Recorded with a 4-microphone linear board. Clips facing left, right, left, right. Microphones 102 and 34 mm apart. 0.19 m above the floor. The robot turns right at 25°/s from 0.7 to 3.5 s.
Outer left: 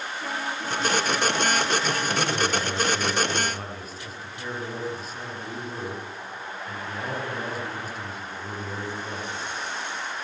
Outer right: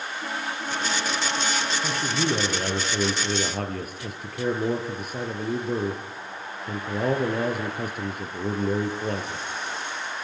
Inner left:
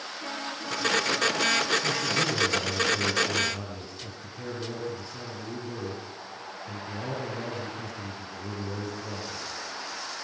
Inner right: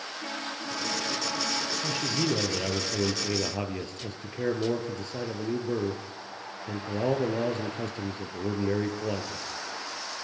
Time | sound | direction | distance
1.8 | a man speaking | 155° right | 3 m